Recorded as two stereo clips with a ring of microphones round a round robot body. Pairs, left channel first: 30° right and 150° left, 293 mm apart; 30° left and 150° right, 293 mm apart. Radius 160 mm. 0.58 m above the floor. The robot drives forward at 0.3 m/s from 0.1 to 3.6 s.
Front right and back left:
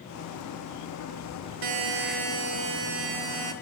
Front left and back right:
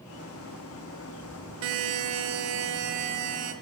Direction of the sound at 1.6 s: 165° left.